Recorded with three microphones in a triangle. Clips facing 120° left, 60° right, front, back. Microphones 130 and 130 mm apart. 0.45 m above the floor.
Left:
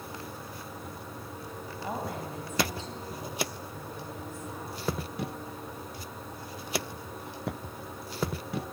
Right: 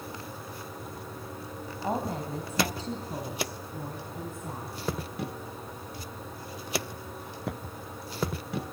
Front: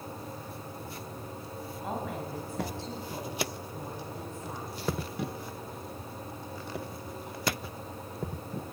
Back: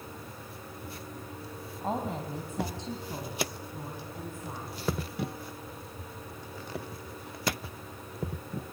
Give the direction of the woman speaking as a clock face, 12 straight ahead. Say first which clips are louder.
Right 4 dB, back 3 dB; 4 o'clock.